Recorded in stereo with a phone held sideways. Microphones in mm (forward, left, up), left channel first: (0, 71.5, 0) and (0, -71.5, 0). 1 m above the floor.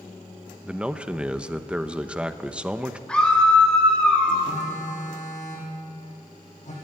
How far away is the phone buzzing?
About 8.5 m.